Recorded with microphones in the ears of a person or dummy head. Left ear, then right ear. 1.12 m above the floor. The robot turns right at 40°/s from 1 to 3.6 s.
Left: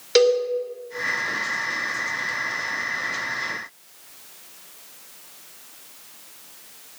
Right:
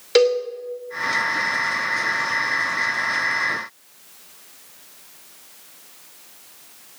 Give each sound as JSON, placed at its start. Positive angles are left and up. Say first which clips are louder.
{"t": 0.1, "sound": "a cowbell", "louder": "right 1 dB", "side_deg": -25, "distance_m": 2.5}